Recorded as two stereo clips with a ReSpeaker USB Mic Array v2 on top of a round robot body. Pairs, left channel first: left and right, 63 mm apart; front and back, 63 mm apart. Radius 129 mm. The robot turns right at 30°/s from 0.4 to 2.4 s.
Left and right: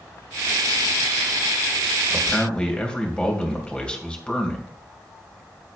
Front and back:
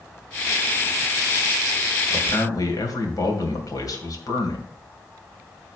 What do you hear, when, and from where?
2.1 s a man speaking: 10° left, 2.5 m; by 4.7 s 20° left, 2.5 m